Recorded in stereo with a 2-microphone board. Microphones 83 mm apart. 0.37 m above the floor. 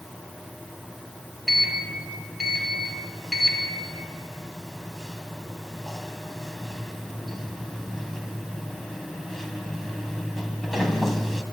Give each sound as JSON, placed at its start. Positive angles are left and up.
{"t": 1.5, "sound": "a sliding door", "side_deg": 0, "distance_m": 2.5}